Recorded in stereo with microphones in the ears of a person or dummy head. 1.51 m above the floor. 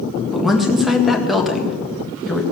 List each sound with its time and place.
0.3 s a woman speaking: centre (ahead or behind), 1.8 m